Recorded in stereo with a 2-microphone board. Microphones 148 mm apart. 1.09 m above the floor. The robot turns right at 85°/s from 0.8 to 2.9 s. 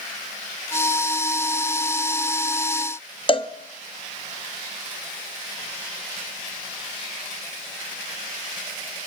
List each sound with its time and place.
3.3 s a cowbell: 35° left (ahead or behind), 1.2 m